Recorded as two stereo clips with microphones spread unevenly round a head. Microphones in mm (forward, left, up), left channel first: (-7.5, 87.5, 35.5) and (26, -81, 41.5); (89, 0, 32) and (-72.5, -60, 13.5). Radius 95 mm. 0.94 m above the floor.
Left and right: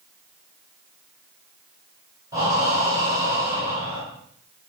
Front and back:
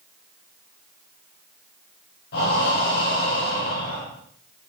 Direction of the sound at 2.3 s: 5° right.